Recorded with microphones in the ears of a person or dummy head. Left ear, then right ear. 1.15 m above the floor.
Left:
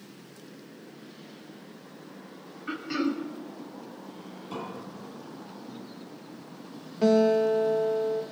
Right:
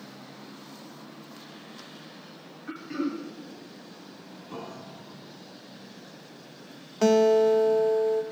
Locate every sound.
2.7 s throat clearing: 40° left (ahead or behind), 2.5 m
4.5 s a piano: 15° left (ahead or behind), 2.5 m
7.0 s a guitar: 50° right (ahead or behind), 1.2 m